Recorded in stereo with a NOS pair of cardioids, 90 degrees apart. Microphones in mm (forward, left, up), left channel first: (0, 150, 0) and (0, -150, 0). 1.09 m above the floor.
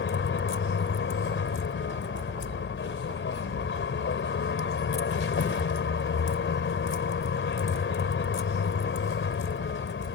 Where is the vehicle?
40° left.